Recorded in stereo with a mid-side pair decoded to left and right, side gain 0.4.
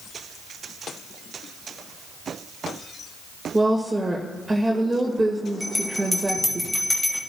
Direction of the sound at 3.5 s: 20° right.